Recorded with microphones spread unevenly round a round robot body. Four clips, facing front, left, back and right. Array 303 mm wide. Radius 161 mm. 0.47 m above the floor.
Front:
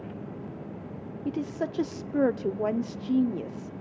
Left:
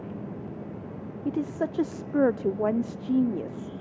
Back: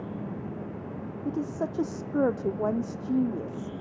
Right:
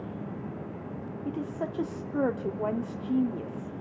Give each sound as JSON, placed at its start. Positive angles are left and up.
{"t": 1.2, "sound": "a woman speaking", "azimuth_deg": 85, "distance_m": 0.7}